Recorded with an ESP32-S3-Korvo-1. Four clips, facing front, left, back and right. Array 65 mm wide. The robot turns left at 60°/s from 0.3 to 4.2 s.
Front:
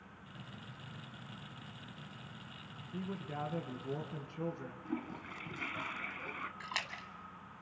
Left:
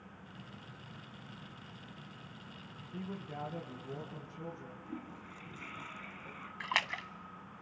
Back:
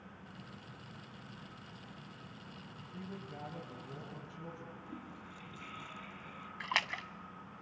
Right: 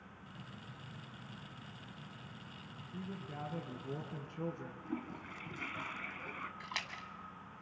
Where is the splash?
125° left, 0.8 m.